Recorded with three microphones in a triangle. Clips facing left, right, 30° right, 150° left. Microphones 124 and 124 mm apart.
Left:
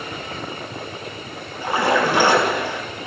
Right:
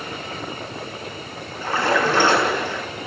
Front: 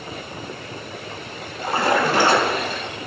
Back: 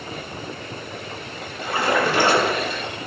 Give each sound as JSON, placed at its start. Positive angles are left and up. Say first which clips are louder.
{"t": 1.6, "sound": "a splash", "louder": "left 1 dB, front 1 dB", "azimuth_deg": 15, "distance_m": 5.5}